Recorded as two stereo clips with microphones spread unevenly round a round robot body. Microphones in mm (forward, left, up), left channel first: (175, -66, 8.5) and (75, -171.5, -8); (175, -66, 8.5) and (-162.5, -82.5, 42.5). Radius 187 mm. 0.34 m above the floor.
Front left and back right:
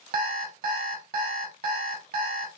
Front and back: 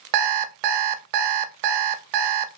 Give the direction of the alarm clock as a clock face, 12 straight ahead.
6 o'clock.